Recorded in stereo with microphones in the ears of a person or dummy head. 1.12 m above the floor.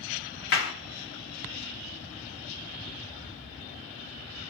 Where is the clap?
65° left (ahead or behind), 1.7 m.